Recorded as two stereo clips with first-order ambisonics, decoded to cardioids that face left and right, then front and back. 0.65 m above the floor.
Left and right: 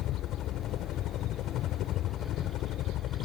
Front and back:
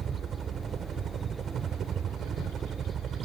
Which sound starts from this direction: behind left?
A helicopter, at 0.0 s.